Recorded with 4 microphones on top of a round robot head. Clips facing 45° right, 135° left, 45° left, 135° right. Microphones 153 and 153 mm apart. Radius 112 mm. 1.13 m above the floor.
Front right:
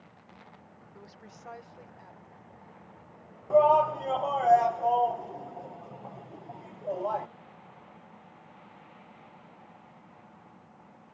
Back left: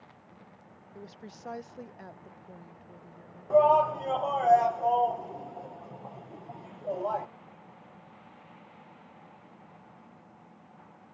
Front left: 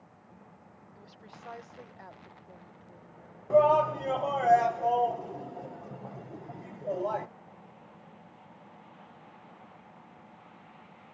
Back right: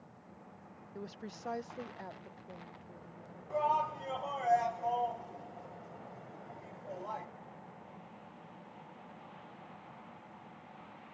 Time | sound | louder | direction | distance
0.9 | a woman speaking | back left 6 dB, back right 9 dB | 155° right | ?
3.5 | a shout | even, front left 11 dB | 45° left | ?